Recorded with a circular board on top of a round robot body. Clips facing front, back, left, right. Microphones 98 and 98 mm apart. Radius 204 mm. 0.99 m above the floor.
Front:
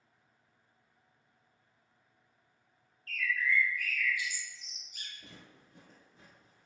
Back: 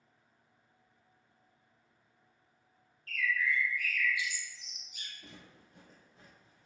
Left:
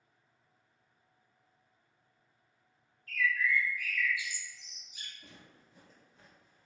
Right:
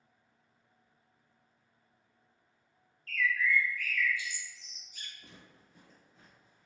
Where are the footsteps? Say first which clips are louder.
Back 1 dB, even; 10° right, 1.1 m; by 6.7 s straight behind, 1.0 m.